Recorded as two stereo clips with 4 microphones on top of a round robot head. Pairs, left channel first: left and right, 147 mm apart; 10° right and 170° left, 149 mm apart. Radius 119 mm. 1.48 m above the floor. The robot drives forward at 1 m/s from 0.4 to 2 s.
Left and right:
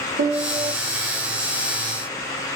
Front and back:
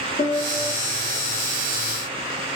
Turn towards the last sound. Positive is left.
turn(degrees=-150)